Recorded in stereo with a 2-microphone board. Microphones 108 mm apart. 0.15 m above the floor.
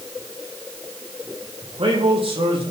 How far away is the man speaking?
About 5 m.